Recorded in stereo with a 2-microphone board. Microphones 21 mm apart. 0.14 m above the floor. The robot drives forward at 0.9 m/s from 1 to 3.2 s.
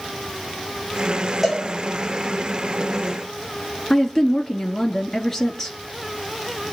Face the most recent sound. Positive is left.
turn(degrees=20)  # may be behind; listen again after turning